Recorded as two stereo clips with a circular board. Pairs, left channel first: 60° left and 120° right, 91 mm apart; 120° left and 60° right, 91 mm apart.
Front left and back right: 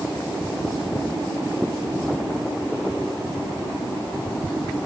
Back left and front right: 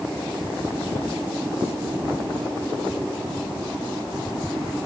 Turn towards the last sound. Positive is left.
No sound to turn to.